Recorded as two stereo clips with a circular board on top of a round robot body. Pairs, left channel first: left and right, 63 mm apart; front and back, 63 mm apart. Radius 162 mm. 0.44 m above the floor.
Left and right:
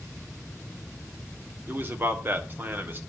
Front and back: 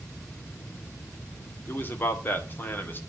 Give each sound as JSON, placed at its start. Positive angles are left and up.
{"t": 1.7, "sound": "a man speaking", "azimuth_deg": -45, "distance_m": 2.0}